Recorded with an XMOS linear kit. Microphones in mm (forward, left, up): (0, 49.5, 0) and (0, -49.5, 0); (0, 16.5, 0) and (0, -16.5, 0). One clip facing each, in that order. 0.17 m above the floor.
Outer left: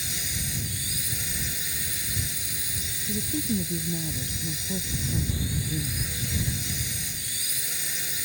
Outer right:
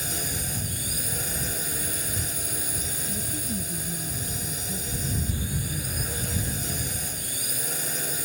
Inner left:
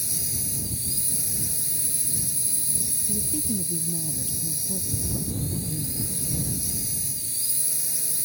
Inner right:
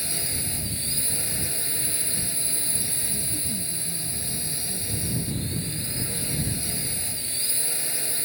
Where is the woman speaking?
40° left (ahead or behind).